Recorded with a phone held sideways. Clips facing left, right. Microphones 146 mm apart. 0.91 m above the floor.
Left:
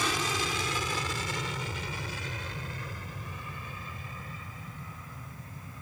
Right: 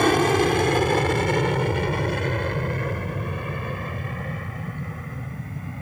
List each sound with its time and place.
0.0 s an aircraft: 60° right (ahead or behind); by 5.8 s 65° right (ahead or behind)